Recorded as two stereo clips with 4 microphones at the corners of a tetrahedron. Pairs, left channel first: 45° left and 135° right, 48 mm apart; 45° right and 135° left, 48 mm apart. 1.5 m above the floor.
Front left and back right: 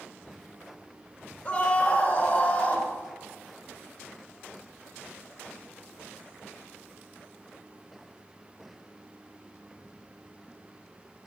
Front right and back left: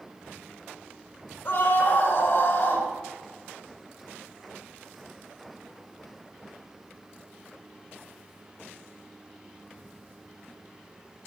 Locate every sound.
1.4 s a scream: 5° right, 5.5 m